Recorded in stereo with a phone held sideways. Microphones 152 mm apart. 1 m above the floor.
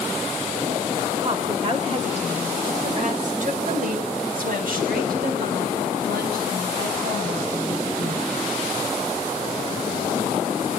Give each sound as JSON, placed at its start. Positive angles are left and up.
{"t": 1.2, "sound": "a woman speaking", "side_deg": -35, "distance_m": 5.0}